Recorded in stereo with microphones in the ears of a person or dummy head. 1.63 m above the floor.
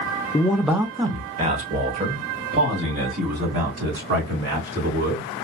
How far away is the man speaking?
About 0.5 m.